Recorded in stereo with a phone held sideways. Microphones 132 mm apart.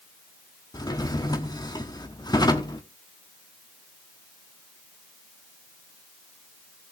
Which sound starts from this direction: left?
A drawer, at 0.7 s.